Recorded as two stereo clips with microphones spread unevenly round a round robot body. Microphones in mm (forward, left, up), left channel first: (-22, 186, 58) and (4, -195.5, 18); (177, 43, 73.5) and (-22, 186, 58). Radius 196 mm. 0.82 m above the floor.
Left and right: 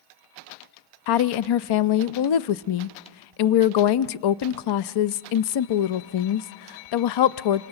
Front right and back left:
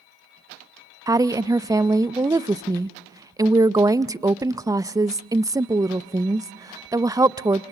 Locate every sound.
1.1 s a woman speaking: 70° left, 0.6 m